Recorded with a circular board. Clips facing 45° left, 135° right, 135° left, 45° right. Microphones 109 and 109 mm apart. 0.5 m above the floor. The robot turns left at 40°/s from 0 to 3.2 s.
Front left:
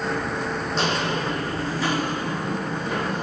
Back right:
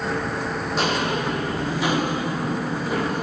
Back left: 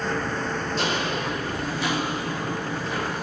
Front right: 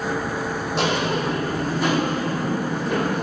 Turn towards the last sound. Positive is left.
turn(degrees=-50)